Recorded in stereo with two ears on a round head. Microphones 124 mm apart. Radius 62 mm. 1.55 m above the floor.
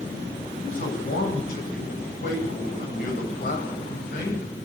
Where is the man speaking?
65° left (ahead or behind), 10 m.